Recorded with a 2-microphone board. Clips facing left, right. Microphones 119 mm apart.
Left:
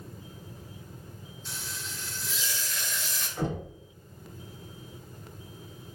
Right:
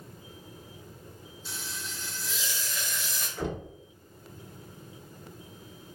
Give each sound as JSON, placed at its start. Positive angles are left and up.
{"t": 1.4, "sound": "frying", "side_deg": -10, "distance_m": 1.1}
{"t": 3.4, "sound": "knocking", "side_deg": 40, "distance_m": 1.3}